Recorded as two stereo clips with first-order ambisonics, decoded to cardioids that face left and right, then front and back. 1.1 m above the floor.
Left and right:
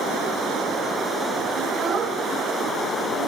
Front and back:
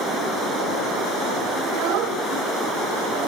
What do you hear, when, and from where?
1.6 s a child speaking: 155° right, 2.5 m; by 3.3 s 115° right, 1.6 m